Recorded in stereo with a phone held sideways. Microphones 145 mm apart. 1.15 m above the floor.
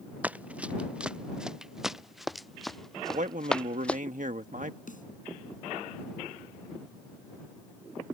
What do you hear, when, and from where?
0.2 s running footsteps: 10° right (ahead or behind); by 4.0 s 10° left (ahead or behind)
3.1 s a man speaking: 65° right (ahead or behind)
4.9 s a snare drum: 65° left (ahead or behind)